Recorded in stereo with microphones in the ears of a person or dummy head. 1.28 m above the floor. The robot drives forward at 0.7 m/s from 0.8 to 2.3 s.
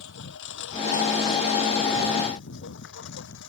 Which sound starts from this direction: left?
A lawn mower, at 0.0 s.